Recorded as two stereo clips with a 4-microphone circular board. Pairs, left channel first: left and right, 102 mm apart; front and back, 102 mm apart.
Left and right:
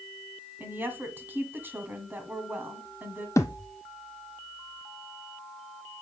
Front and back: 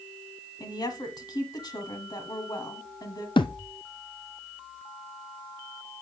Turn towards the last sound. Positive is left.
turn(degrees=35)